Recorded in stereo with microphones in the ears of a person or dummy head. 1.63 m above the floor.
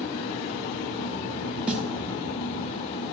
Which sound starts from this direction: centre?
A snare drum, at 1.7 s.